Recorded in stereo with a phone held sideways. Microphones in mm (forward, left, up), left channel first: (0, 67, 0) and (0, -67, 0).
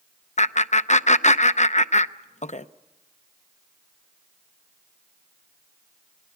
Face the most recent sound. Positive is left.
turn(degrees=60)  # may be behind; listen again after turning